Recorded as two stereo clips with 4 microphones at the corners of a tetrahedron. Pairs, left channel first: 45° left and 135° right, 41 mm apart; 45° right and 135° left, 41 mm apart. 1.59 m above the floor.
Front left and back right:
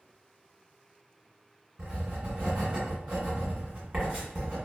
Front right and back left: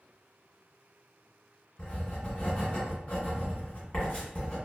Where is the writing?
85° right, 1.5 m.